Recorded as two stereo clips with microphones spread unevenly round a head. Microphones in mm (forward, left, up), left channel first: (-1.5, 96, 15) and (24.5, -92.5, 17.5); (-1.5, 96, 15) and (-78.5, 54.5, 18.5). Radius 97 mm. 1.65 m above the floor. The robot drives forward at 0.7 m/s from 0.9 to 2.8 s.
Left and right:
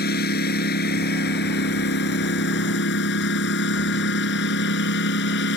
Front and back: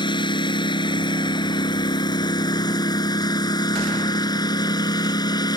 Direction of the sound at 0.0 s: 60° left.